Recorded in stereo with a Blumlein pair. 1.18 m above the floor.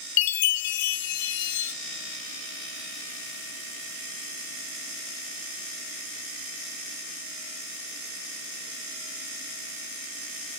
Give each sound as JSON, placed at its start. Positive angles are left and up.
{"t": 0.2, "sound": "a chime", "azimuth_deg": 50, "distance_m": 0.8}